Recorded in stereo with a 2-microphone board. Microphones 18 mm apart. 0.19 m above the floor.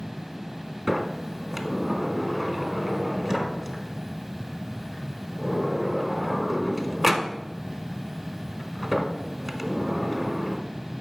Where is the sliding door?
5° right (ahead or behind), 0.7 m.